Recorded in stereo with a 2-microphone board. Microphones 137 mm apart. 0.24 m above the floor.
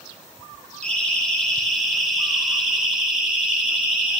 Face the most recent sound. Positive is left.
turn(degrees=-10)  # may be behind; listen again after turning